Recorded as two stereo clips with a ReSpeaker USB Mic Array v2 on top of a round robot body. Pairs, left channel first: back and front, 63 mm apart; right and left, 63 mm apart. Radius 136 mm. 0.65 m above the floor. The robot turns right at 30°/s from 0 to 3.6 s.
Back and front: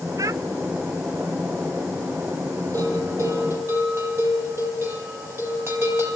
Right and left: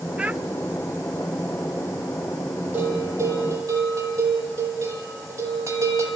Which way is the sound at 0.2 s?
20° left.